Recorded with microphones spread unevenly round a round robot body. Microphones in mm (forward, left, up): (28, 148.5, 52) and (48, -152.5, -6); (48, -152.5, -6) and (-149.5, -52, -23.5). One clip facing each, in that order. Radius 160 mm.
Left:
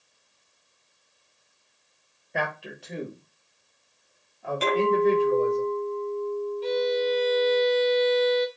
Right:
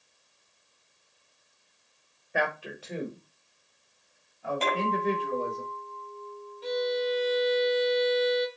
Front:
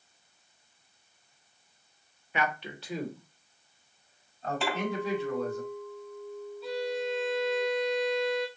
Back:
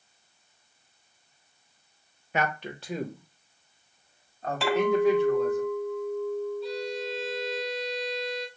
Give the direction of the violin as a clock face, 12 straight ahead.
10 o'clock.